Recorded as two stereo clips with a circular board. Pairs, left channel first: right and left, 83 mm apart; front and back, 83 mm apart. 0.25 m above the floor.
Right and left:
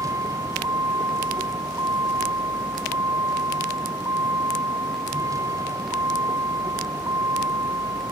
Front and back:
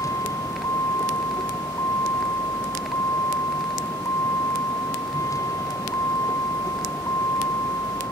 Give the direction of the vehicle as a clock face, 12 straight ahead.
10 o'clock.